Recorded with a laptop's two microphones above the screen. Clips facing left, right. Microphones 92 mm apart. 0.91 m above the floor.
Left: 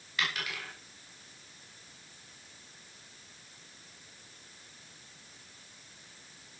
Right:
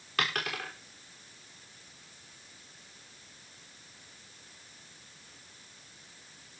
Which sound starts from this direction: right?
A dropped coin, at 0.2 s.